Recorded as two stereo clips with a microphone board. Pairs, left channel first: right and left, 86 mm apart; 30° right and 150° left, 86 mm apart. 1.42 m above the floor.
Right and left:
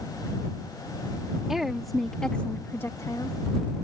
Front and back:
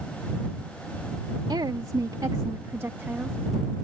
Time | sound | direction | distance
1.5 | a woman speaking | 175° left | ?